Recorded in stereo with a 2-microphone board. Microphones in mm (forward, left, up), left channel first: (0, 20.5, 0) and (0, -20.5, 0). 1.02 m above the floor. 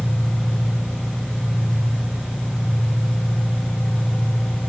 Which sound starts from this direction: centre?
An engine running, at 0.0 s.